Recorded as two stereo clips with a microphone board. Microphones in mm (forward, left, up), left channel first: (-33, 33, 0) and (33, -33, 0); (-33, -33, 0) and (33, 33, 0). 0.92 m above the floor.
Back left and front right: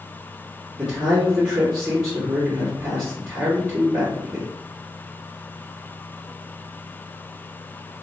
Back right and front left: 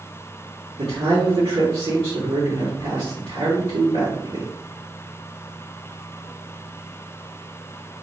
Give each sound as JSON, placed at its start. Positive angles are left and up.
{"t": 0.8, "sound": "a man speaking", "azimuth_deg": 30, "distance_m": 1.5}